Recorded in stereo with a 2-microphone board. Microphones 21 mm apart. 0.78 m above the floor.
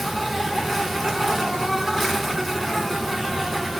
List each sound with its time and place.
0.0 s an insect: centre (ahead or behind), 0.8 m